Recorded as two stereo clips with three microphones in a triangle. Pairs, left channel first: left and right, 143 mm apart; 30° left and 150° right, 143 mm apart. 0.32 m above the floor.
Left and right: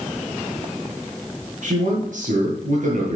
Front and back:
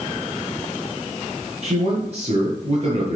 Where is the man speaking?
110° right, 6.5 m.